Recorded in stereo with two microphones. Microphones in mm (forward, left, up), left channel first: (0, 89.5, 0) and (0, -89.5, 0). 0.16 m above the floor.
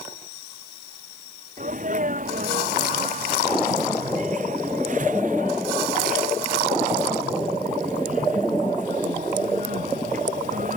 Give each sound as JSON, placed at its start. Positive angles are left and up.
{"t": 1.6, "sound": "a sneeze", "side_deg": -45}